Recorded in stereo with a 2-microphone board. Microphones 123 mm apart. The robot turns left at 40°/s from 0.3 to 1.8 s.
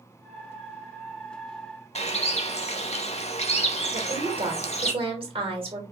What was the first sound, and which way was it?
A bird, 60° left (ahead or behind).